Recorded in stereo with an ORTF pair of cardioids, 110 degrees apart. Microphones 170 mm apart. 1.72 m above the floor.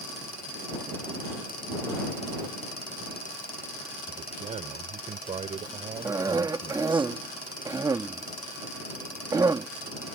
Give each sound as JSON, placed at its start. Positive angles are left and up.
{"t": 4.1, "sound": "a man speaking", "azimuth_deg": -45}
{"t": 6.0, "sound": "a cough", "azimuth_deg": -20}